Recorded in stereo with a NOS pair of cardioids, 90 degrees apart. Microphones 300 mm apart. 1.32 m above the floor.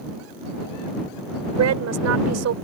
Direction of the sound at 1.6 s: 60° right.